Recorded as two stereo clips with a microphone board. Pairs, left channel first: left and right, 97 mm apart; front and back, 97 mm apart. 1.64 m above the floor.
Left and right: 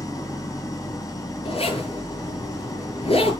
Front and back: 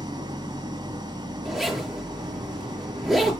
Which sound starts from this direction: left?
A zipper, at 1.4 s.